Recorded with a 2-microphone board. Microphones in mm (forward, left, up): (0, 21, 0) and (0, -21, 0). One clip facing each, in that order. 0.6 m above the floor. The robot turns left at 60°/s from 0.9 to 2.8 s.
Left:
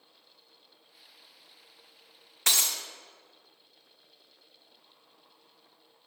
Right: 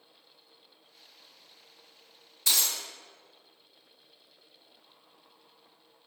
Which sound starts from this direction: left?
Breaking glass, at 2.5 s.